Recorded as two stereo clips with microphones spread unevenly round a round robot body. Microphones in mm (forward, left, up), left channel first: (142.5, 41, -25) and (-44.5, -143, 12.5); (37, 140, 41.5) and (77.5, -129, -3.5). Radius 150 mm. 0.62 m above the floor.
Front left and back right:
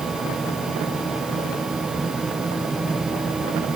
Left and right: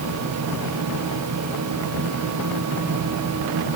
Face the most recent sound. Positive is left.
No sound to turn to.